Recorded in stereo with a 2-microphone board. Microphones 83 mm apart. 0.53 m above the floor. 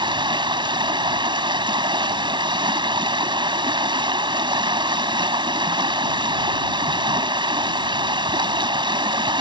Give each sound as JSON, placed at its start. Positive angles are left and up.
{"t": 0.0, "sound": "running water", "side_deg": -75}